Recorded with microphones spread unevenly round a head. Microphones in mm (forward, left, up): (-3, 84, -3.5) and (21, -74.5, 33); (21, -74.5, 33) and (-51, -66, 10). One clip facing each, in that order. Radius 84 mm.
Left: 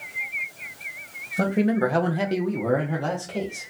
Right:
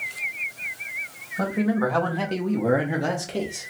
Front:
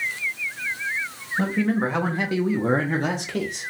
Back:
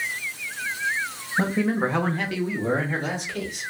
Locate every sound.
1.4 s a man speaking: 125° left, 0.8 m; by 3.7 s 15° right, 0.9 m